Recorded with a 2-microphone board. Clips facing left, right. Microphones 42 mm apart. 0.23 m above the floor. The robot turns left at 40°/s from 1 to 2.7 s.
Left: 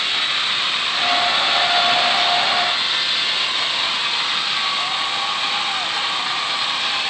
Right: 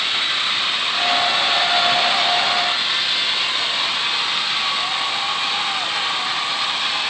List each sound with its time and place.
Only background noise.